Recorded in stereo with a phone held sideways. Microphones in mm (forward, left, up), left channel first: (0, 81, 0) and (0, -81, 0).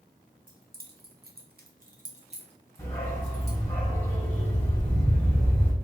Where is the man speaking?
No man speaking in this recording.